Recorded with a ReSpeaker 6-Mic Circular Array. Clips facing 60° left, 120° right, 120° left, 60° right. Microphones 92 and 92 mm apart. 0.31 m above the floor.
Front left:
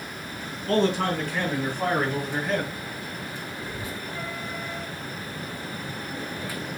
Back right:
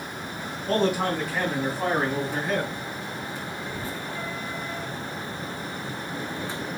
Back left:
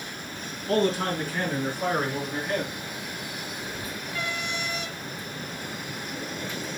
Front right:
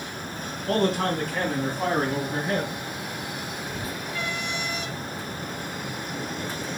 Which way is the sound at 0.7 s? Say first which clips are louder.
Front left 1 dB, front right 1 dB; 40° right.